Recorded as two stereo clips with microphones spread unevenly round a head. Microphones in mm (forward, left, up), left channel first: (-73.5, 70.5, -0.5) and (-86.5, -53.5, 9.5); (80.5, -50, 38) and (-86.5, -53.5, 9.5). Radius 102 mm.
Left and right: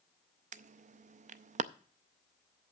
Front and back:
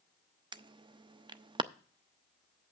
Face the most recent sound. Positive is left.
turn(degrees=-110)